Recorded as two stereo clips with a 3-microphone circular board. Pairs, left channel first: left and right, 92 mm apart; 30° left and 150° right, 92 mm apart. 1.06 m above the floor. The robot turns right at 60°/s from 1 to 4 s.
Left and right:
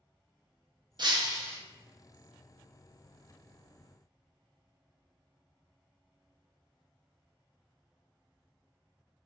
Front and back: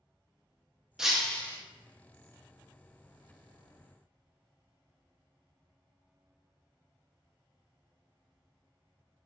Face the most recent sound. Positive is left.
turn(degrees=110)